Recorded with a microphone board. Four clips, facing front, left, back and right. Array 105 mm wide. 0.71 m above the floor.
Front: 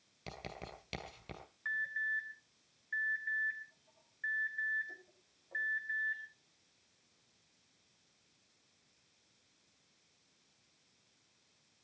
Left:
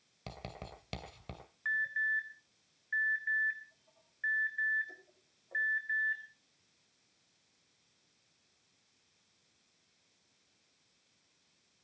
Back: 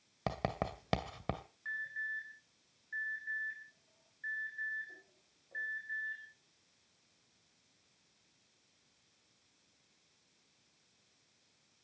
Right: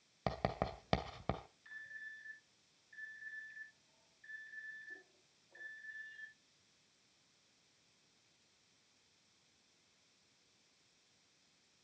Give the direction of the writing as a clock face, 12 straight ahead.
5 o'clock.